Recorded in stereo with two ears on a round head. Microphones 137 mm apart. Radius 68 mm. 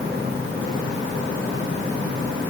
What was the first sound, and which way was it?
Only background noise.